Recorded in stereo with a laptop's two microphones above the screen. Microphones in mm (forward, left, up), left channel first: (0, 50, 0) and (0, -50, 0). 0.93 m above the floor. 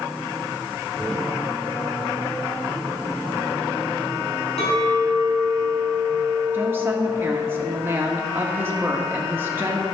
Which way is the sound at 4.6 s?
80° left.